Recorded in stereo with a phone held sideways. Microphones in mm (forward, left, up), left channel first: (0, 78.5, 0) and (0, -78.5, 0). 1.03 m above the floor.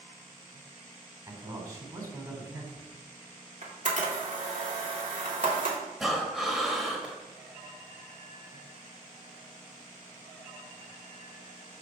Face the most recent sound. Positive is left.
turn(degrees=0)  # may be behind; listen again after turning